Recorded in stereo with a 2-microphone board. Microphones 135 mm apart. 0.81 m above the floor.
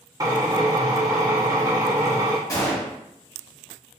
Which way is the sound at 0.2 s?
25° right (ahead or behind).